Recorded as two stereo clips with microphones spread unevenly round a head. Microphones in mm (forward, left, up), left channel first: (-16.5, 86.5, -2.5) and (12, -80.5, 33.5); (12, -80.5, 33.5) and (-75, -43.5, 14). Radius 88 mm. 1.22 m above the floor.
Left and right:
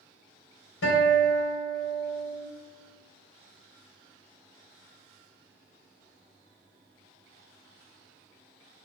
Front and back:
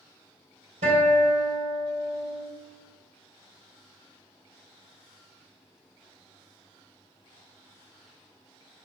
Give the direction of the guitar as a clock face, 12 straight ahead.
8 o'clock.